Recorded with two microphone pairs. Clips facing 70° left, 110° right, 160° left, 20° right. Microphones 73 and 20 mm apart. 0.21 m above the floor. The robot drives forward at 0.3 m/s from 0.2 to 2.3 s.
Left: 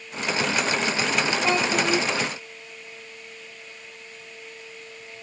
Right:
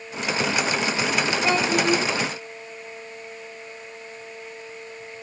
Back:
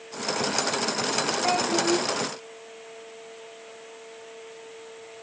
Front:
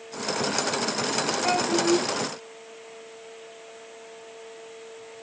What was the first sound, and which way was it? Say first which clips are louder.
A child speaking: right 3 dB, front 1 dB; 120° right.